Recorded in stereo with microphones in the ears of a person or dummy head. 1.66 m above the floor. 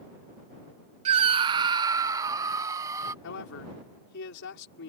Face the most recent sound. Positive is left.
turn(degrees=75)  # may be behind; listen again after turning